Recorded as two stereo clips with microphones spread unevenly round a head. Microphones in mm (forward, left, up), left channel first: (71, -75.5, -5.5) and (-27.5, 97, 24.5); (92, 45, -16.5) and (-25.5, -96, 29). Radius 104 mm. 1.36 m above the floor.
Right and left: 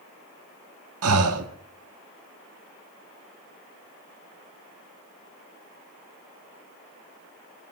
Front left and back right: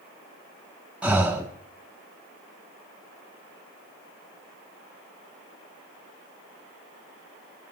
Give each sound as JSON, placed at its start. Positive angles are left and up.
{"t": 1.0, "sound": "breathing", "azimuth_deg": 145, "distance_m": 1.3}